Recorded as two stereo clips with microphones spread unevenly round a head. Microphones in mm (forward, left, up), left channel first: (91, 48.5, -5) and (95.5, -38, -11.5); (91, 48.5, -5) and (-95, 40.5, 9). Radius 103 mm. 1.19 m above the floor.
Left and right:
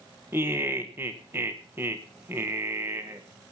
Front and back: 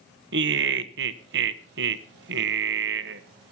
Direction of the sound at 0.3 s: 155° right.